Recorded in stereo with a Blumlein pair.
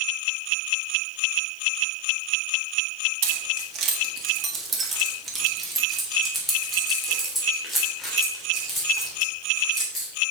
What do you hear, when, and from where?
3.2 s keys jangling: 50° right, 1.5 m; by 10.1 s 15° left, 4.5 m